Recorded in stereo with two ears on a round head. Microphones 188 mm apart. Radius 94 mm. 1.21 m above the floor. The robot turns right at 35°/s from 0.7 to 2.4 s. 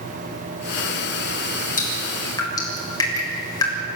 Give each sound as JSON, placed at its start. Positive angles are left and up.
{"t": 1.8, "sound": "dripping", "side_deg": 40, "distance_m": 6.5}